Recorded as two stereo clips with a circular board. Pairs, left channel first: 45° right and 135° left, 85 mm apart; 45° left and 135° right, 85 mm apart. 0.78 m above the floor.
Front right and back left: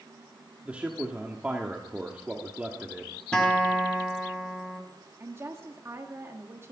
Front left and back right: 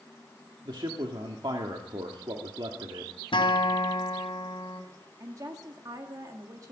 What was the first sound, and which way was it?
A man speaking, 150° right.